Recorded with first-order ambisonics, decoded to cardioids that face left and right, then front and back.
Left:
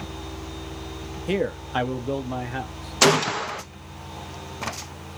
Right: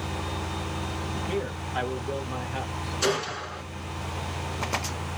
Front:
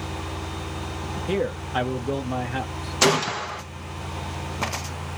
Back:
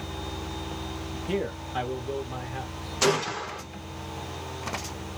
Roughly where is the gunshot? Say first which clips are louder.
Left 9 dB, front 4 dB; ahead left.